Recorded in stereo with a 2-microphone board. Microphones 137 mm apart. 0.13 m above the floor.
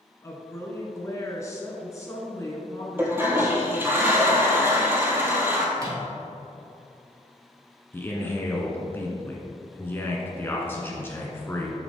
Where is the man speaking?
15° left (ahead or behind), 1.2 m.